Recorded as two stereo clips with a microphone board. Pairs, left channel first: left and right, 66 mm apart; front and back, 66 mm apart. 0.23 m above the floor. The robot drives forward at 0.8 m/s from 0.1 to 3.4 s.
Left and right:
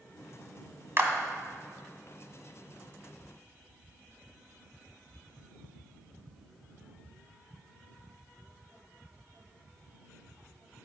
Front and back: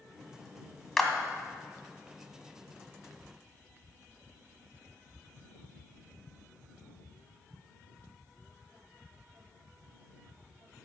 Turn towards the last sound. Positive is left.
turn(degrees=-150)